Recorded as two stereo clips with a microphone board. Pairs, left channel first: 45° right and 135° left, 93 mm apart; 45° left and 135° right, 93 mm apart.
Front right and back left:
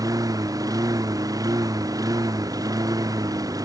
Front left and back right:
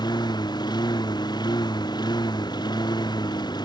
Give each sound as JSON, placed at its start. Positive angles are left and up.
{"t": 0.0, "sound": "a lawn mower", "azimuth_deg": 85}